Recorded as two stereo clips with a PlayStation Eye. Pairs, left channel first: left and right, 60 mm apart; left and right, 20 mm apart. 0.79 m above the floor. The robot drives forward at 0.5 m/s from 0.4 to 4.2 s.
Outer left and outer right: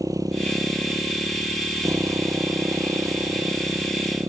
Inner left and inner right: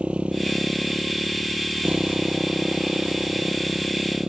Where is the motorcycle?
75° right (ahead or behind); by 4.3 s 65° right (ahead or behind).